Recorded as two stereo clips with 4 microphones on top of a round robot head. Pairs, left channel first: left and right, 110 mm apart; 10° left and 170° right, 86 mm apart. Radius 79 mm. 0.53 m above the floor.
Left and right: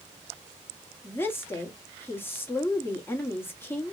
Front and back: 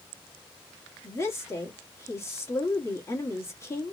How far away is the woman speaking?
About 1.3 m.